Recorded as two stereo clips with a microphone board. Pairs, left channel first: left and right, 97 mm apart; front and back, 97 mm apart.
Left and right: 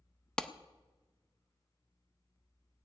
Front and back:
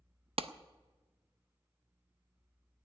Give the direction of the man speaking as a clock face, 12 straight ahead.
I don't hear a man speaking.